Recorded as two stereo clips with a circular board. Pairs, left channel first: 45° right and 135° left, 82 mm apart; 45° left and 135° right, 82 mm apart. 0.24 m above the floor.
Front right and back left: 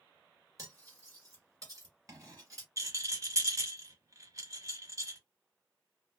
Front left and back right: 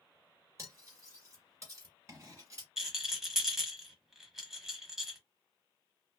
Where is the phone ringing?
I don't hear a phone ringing.